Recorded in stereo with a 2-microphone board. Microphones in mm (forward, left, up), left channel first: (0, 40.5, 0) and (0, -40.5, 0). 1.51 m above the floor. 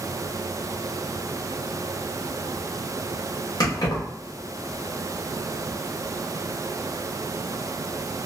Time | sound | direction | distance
3.6 | keys jangling | 60° left (ahead or behind) | 1.7 m